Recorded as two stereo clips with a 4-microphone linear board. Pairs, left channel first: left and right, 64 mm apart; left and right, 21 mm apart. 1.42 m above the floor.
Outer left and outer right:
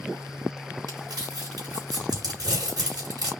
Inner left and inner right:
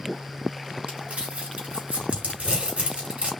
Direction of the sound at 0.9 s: 75° right (ahead or behind).